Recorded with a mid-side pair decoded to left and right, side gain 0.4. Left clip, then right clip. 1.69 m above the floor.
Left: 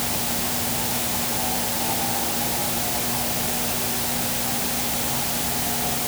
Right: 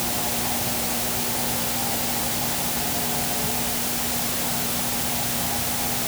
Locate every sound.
Only background noise.